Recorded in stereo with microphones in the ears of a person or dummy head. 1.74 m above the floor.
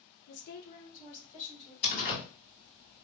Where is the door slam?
40° left (ahead or behind), 2 m.